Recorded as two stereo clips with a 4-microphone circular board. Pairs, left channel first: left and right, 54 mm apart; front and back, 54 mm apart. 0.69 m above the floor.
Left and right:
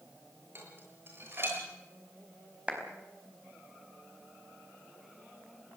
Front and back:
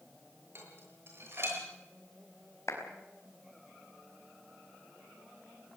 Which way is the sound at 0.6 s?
135° right.